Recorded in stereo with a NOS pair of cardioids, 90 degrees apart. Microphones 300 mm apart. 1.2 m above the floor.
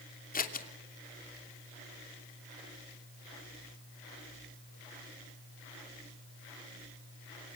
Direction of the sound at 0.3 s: 30° left.